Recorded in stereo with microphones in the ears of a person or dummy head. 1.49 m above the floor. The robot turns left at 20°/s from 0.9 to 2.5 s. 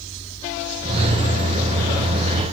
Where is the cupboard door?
No cupboard door in this recording.